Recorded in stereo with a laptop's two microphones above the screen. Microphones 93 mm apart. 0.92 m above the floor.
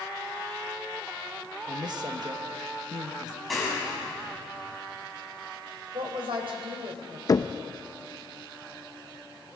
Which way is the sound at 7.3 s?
40° left (ahead or behind).